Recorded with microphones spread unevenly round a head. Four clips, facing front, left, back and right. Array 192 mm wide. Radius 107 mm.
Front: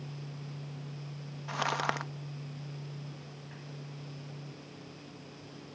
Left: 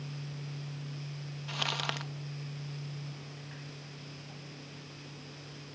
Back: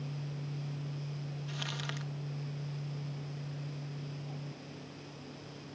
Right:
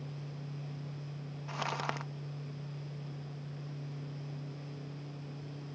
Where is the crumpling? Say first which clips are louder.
Right 1 dB, front 13 dB; 5° right.